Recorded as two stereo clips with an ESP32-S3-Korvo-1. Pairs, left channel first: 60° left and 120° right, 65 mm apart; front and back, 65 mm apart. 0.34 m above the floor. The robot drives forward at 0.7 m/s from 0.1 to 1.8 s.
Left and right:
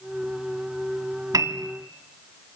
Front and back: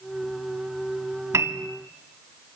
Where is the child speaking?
I don't hear a child speaking.